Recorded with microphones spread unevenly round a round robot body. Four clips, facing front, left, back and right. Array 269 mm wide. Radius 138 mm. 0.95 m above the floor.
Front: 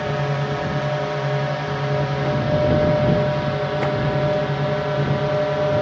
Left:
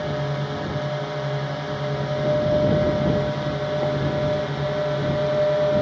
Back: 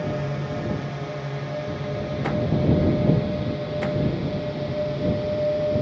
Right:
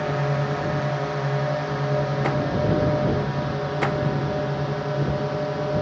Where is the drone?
40° right; by 5.8 s 5° right.